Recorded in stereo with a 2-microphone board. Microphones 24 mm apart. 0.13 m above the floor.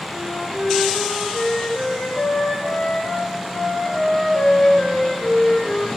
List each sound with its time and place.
0.1 s a flute: 75° left (ahead or behind), 3.5 m